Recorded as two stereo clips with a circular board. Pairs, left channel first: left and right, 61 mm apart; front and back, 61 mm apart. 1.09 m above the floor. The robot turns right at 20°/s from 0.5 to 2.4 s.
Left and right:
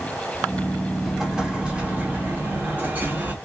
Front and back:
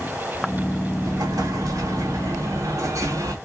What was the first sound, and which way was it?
An explosion, 175° right.